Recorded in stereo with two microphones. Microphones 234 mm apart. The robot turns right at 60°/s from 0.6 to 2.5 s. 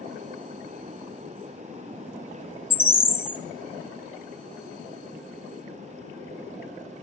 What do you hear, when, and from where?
2.7 s a bird: 10° left (ahead or behind), 0.7 m